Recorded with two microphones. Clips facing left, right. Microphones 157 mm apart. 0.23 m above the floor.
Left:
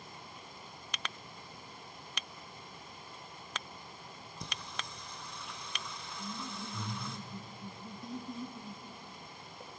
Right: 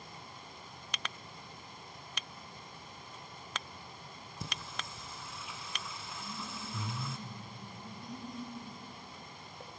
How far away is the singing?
About 1.9 m.